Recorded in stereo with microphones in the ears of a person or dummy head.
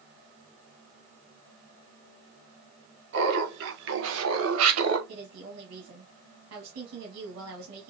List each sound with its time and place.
3.1 s laughter: 55° right (ahead or behind), 2.5 m; by 5.0 s 75° right (ahead or behind), 1.2 m
5.1 s a woman speaking: 75° right (ahead or behind), 2 m